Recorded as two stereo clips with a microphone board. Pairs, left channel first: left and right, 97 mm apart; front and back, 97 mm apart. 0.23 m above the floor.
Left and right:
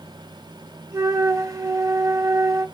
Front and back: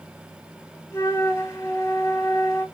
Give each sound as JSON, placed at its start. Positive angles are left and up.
{"t": 0.9, "sound": "a flute", "azimuth_deg": -50, "distance_m": 0.5}